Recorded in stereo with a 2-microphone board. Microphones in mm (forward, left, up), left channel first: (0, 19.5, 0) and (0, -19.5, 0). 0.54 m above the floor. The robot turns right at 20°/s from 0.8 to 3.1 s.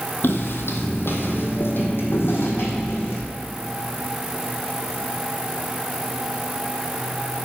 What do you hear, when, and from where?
0.2 s footsteps: 65° left (ahead or behind), 1.1 m; by 3.2 s 75° left (ahead or behind), 2.0 m